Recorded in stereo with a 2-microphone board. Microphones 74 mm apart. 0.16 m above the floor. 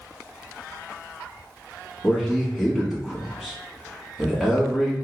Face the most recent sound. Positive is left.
turn(degrees=0)  # may be behind; listen again after turning